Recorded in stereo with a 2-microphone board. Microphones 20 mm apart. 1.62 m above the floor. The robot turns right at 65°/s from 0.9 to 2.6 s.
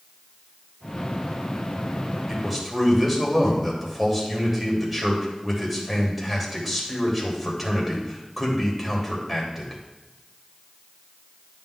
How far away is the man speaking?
About 3 m.